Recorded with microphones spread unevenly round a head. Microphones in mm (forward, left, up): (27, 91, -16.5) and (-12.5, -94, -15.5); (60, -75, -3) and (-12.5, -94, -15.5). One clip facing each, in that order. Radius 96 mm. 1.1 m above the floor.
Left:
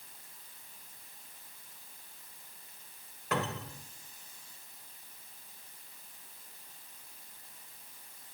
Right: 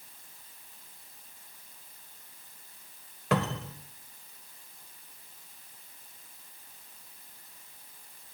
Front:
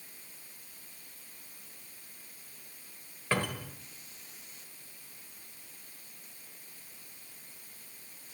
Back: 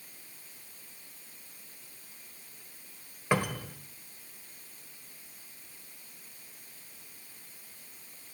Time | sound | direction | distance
3.3 | a cupboard door | 85° right | 1.4 m